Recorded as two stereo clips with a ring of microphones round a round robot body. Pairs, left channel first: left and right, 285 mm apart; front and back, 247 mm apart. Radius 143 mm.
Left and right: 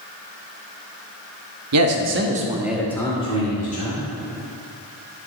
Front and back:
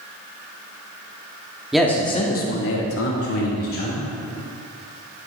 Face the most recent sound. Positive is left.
turn(degrees=30)